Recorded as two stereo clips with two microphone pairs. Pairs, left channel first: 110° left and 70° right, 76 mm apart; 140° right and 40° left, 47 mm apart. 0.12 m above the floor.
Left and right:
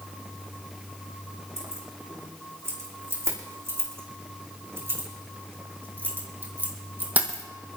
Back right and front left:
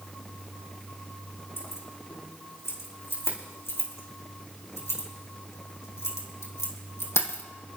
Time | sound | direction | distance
1.6 | keys jangling | 120° right | 6.5 m